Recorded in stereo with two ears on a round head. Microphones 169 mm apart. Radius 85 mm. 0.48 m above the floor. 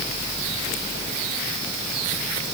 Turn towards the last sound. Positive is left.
No sound to turn to.